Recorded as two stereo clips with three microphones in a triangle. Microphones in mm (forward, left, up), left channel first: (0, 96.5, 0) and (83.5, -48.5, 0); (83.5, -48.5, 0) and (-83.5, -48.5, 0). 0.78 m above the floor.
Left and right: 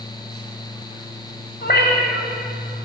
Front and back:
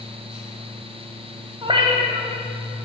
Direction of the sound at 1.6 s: 120° left.